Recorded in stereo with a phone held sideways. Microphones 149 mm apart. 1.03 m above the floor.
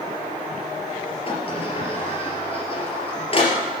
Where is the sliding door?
40° left (ahead or behind), 3.5 m.